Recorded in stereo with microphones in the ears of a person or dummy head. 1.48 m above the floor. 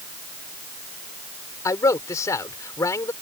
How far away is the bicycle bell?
I don't hear a bicycle bell.